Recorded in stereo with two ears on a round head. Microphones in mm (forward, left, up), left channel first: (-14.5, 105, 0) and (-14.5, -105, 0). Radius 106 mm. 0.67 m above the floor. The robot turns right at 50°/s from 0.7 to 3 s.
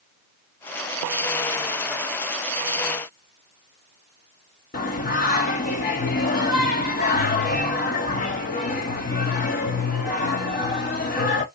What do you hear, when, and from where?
4.7 s singing: 35° left (ahead or behind), 0.8 m